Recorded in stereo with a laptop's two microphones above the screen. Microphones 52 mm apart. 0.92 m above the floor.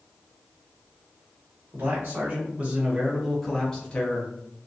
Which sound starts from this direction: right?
A man speaking, at 1.7 s.